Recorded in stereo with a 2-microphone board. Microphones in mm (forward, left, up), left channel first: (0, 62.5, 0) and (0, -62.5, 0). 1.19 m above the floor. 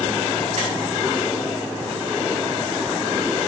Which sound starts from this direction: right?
Tapping, at 0.6 s.